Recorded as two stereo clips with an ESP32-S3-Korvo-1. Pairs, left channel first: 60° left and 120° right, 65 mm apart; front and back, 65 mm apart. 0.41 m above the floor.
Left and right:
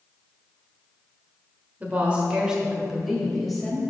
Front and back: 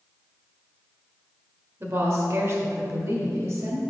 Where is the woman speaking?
175° right, 1.6 m; by 3.8 s 145° left, 2 m.